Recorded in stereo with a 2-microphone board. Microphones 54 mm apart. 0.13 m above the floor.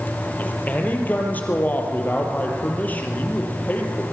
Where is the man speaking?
30° left (ahead or behind), 3.5 m.